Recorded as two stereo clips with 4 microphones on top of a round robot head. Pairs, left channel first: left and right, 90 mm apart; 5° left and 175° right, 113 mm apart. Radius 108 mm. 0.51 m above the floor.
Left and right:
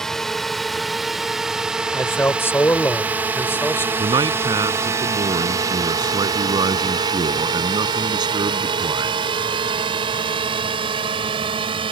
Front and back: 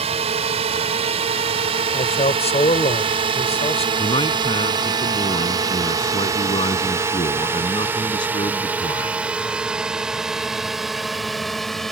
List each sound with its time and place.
0.0 s a drone: 175° left; by 11.9 s 85° right
1.9 s a man speaking: 25° left
4.0 s a man speaking: 50° right